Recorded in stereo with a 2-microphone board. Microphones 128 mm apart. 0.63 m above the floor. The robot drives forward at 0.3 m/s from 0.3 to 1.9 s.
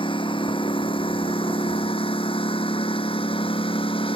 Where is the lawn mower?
45° left (ahead or behind).